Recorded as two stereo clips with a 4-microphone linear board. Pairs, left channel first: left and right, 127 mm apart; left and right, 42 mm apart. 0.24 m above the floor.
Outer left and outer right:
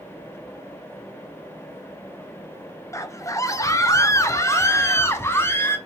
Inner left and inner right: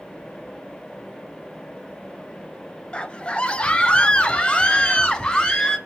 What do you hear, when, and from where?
2.9 s a scream: 25° left (ahead or behind), 0.9 m; by 5.8 s 20° left (ahead or behind), 1.7 m